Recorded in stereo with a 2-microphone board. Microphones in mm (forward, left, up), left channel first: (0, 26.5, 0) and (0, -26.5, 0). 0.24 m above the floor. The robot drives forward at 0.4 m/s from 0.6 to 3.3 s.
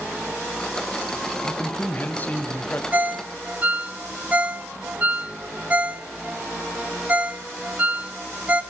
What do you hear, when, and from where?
1.4 s a man speaking: 35° left (ahead or behind), 1.5 m; by 2.8 s 30° left (ahead or behind), 1.7 m
2.9 s a ringtone: 35° right (ahead or behind), 0.9 m; by 8.6 s 30° right (ahead or behind), 1.0 m